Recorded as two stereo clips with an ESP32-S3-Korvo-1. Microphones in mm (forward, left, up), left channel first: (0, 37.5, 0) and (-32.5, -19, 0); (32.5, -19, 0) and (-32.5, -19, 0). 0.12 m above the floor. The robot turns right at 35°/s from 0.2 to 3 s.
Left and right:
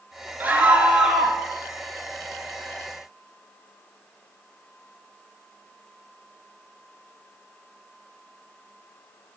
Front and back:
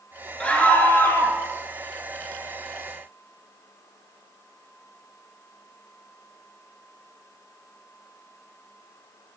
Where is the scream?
65° right, 1.5 m; by 1.4 s 30° right, 1.5 m.